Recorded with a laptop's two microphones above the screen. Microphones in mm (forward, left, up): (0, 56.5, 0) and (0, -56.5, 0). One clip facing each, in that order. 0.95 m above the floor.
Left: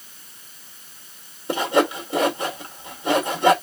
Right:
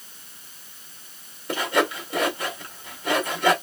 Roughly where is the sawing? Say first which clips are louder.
Left 4 dB; left.